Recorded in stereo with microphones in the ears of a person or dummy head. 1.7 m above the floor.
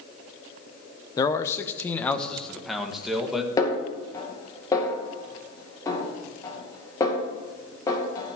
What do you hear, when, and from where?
1.2 s a man speaking: 25° left (ahead or behind), 1.0 m; by 3.5 s centre (ahead or behind), 2.0 m
3.6 s a snare drum: 25° left (ahead or behind), 2 m